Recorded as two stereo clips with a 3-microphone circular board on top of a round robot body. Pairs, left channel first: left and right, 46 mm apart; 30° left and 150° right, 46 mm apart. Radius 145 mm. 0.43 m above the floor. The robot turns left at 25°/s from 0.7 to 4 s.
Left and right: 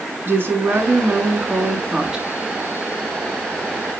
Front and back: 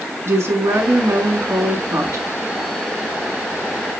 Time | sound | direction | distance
0.2 | a woman speaking | 130° right | 5 m